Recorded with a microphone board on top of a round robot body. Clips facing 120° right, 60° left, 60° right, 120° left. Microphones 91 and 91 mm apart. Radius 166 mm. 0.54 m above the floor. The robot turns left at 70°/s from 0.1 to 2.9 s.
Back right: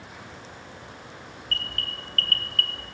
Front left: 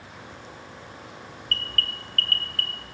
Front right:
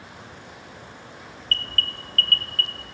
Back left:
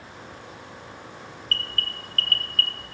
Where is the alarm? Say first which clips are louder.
Front left 3 dB, front right 2 dB; 35° right, 1.2 m; by 2.8 s 130° right, 1.2 m.